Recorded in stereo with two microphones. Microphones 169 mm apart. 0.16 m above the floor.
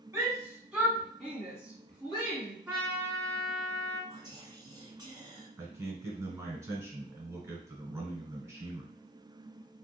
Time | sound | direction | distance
0.1 | a shout | 20° right (ahead or behind) | 1.4 m
2.7 | a trumpet | 5° right (ahead or behind) | 1.7 m
4.1 | whispering | 25° right (ahead or behind) | 1.1 m
5.6 | a man speaking | 15° right (ahead or behind) | 1.3 m